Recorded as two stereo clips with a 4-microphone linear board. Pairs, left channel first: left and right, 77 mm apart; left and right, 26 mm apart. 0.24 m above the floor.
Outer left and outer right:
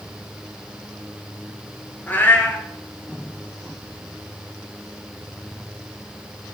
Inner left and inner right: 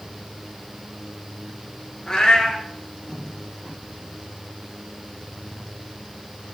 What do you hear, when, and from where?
2.1 s a cat meowing: 25° left (ahead or behind), 1.1 m